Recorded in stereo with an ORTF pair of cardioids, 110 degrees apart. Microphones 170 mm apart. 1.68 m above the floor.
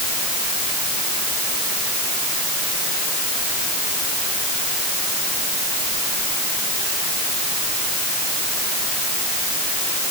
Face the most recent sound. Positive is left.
No sound to turn to.